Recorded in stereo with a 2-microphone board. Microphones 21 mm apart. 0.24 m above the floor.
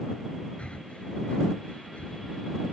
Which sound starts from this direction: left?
Breathing, at 0.6 s.